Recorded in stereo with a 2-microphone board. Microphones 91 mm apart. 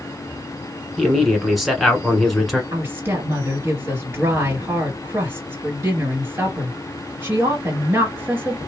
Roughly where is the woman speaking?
Right.